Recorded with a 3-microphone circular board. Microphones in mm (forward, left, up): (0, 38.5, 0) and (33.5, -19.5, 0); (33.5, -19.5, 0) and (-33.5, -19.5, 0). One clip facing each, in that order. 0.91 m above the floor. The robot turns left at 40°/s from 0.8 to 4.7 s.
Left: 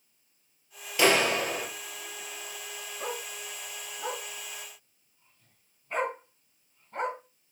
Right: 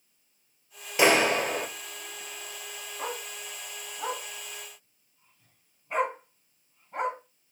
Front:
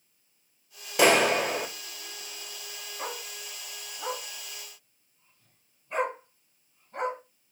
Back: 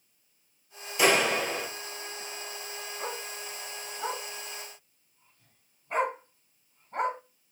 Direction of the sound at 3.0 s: 65° right.